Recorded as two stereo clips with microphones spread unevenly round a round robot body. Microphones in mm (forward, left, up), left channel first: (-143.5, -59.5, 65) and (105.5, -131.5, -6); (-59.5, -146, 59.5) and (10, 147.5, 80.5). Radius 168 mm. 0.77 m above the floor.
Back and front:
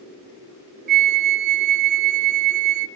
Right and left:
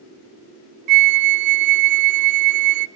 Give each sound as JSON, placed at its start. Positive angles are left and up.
{"t": 0.9, "sound": "a flute", "azimuth_deg": 45, "distance_m": 0.5}